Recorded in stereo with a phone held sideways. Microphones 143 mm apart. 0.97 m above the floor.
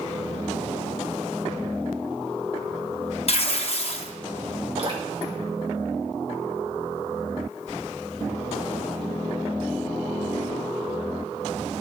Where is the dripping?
45° right (ahead or behind), 1.5 m.